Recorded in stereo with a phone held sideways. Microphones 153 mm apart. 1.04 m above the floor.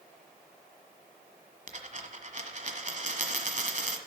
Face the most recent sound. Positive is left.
turn(degrees=-55)  # may be behind; listen again after turning